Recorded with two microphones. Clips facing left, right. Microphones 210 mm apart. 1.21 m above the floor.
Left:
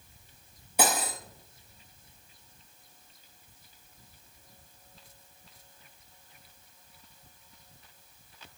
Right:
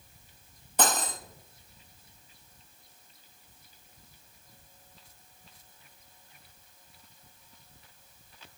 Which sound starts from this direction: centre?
Cutlery clinking, at 0.8 s.